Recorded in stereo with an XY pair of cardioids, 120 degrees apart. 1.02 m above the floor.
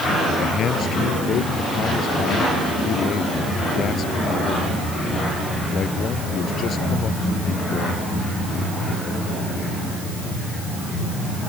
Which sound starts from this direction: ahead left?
A man speaking, at 0.4 s.